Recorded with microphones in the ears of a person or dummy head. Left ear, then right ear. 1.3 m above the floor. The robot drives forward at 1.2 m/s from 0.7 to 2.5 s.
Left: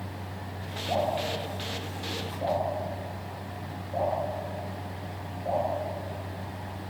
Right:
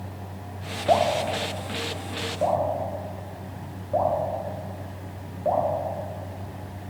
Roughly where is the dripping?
Right.